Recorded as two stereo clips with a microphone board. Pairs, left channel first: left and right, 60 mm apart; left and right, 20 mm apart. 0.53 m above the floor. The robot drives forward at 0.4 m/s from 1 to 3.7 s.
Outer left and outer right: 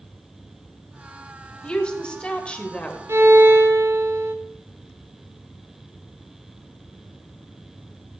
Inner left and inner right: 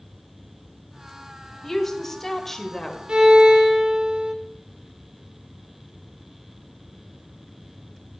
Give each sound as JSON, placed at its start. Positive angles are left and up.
{"t": 1.6, "sound": "a woman speaking", "side_deg": 15, "distance_m": 2.5}
{"t": 3.1, "sound": "a violin", "side_deg": -50, "distance_m": 2.0}